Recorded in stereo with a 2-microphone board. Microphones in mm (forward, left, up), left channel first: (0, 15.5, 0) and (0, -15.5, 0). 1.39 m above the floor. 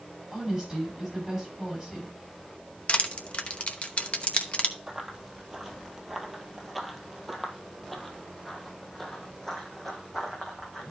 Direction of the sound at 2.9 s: 40° left (ahead or behind).